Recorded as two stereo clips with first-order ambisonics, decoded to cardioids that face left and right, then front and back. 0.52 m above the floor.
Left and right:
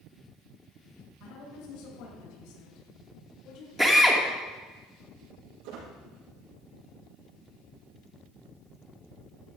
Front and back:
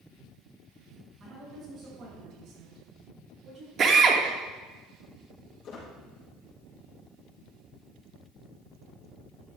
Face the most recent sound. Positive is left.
turn(degrees=-60)